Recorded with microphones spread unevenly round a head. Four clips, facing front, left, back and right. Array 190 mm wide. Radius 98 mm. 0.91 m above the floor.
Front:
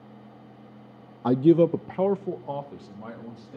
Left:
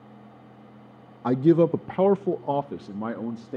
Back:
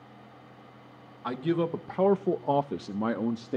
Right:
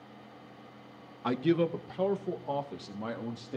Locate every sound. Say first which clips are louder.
1.2 s a man speaking: left 9 dB, front 10 dB; 30° left, 0.7 m; by 3.6 s 155° left, 1.6 m